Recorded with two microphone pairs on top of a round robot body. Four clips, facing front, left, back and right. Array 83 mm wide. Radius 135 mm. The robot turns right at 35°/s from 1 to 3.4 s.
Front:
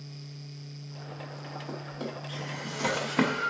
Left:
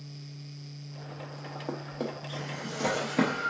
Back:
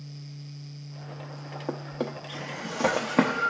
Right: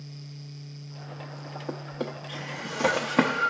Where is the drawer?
160° left, 0.5 m; by 3.5 s 140° right, 0.5 m.